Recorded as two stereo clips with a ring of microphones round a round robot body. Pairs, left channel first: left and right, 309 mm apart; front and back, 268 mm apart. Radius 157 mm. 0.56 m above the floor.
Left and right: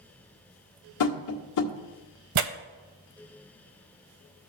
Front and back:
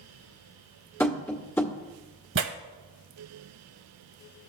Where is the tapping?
80° left, 1.4 m.